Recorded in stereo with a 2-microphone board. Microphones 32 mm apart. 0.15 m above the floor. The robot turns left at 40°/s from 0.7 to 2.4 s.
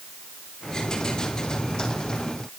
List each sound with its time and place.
Only background noise.